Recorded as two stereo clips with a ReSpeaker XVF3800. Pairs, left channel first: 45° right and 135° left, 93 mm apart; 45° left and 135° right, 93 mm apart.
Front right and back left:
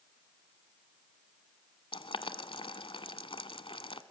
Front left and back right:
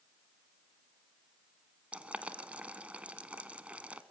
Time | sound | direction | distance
1.9 | boiling | 60° right | 1.0 m